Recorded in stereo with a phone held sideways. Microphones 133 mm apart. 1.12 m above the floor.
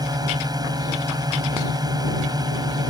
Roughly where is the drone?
Right.